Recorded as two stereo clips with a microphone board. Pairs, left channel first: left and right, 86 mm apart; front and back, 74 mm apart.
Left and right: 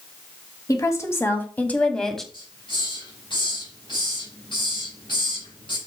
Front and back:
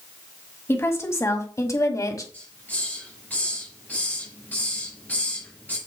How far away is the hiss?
About 5 m.